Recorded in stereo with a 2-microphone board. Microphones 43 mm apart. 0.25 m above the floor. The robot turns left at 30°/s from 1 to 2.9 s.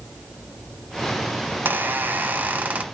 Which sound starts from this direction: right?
A squeak, at 1.5 s.